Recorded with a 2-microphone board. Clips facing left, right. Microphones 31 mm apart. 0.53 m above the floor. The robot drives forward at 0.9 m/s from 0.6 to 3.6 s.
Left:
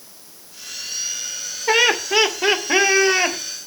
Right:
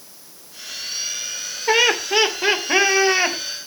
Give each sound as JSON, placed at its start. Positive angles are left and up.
{"t": 1.7, "sound": "laughter", "side_deg": 5, "distance_m": 1.2}